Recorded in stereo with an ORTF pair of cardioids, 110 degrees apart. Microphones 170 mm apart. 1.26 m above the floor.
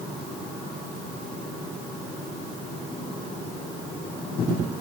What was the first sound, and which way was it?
Only background noise.